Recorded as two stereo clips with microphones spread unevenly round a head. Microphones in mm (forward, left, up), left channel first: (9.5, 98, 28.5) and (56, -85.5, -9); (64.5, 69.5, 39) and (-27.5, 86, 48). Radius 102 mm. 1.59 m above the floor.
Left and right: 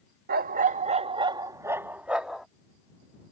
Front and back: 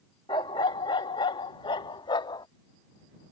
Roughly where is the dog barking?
Ahead right.